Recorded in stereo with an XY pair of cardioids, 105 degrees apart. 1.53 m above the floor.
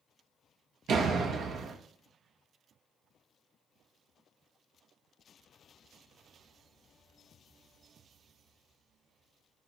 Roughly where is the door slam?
Right.